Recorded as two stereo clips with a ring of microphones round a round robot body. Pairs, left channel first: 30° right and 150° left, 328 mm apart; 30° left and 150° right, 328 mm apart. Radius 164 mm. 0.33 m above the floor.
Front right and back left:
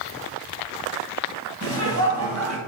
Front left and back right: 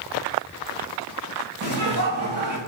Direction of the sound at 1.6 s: 175° right.